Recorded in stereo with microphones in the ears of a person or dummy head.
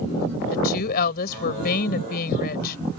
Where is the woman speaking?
55° left (ahead or behind).